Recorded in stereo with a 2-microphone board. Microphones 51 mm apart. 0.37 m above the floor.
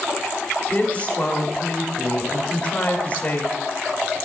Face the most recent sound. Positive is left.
turn(degrees=25)  # may be behind; listen again after turning